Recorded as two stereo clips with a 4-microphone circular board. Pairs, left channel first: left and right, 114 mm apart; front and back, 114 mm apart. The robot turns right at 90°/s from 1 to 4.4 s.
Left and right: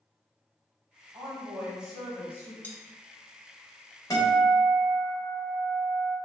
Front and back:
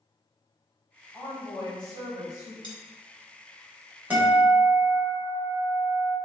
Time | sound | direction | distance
1.1 | a woman speaking | 70° right | 1.2 m
2.6 | cutlery clinking | 155° left | 0.7 m
4.1 | a guitar | 115° left | 1.5 m